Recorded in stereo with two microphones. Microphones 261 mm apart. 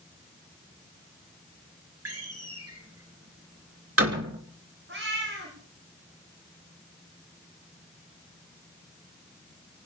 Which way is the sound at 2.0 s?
55° right (ahead or behind).